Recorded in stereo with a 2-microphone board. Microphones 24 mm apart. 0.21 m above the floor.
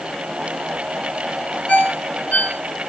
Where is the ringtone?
75° left (ahead or behind), 3 m.